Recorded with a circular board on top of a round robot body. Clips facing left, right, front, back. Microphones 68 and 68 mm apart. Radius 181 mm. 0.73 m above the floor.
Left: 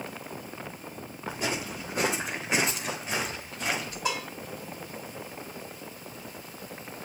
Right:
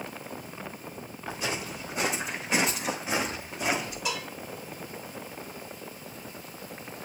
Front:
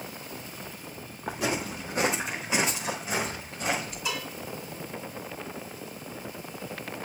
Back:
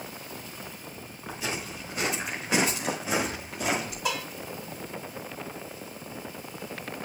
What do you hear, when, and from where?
1.3 s footsteps: 35° left, 1.4 m; by 4.0 s 160° right, 1.9 m
4.0 s dishes clattering: 140° left, 4 m